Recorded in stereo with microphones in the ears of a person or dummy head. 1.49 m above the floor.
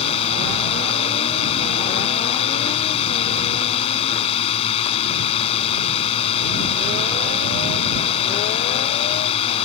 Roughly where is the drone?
Left.